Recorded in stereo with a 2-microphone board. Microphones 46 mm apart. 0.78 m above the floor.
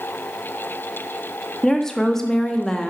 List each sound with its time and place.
1.6 s a woman speaking: 10° left (ahead or behind), 0.8 m